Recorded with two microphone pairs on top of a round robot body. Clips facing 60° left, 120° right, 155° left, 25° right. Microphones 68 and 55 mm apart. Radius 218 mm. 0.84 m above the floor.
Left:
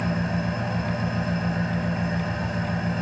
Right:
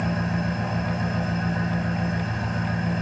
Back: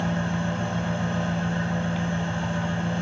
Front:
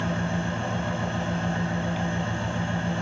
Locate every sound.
0.0 s an engine running: 45° left, 1.0 m